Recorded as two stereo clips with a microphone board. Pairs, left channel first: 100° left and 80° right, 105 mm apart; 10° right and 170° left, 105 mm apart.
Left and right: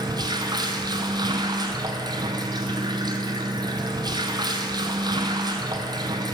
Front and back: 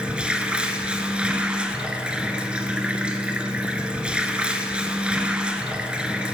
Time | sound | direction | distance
0.0 | running water | 110° right | 0.9 m